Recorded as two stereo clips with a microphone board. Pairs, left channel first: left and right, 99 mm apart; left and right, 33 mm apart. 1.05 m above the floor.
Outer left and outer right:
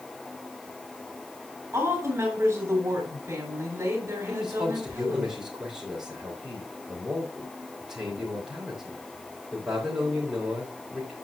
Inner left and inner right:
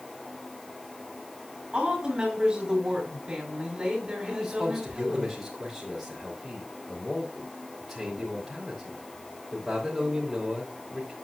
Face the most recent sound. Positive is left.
turn(degrees=-5)  # may be behind; listen again after turning